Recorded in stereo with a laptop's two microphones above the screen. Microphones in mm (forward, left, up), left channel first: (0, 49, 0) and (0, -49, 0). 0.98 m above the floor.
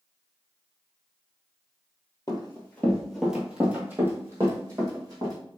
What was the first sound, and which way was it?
Running footsteps, 35° left (ahead or behind).